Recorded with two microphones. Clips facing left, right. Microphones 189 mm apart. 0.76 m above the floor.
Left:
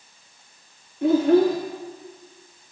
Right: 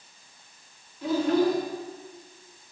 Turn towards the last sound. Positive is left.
turn(degrees=55)  # may be behind; listen again after turning